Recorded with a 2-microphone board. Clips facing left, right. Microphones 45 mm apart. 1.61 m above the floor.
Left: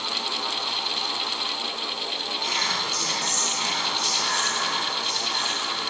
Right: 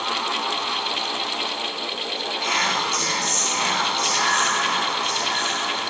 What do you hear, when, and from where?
2.4 s whispering: 50° right (ahead or behind), 0.9 m